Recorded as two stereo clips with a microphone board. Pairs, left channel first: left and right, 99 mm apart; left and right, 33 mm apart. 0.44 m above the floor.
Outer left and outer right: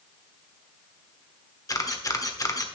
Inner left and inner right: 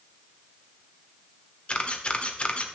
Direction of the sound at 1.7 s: 35° left (ahead or behind).